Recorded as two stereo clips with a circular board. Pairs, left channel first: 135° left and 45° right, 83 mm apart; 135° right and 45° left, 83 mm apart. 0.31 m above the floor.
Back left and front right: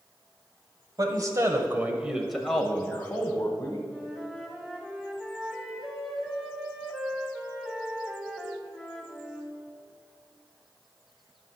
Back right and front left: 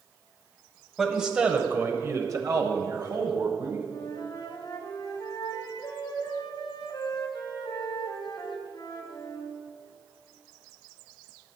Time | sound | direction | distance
1.0 | a man speaking | 40° right | 1.4 m
3.9 | a flute | 130° right | 2.0 m